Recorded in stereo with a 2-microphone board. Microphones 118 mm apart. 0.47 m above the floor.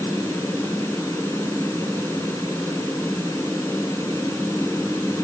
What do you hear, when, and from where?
Only background noise.